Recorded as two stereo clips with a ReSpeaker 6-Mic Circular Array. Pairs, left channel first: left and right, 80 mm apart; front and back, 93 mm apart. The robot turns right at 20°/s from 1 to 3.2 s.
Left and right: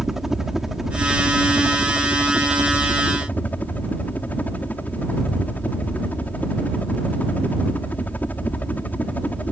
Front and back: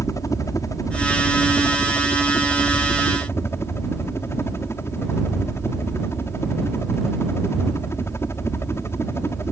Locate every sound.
0.0 s a helicopter: 5° right; by 9.5 s 35° left